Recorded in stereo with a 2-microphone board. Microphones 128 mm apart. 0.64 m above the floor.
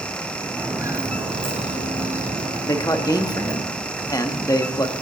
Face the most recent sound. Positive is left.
turn(degrees=30)  # may be behind; listen again after turning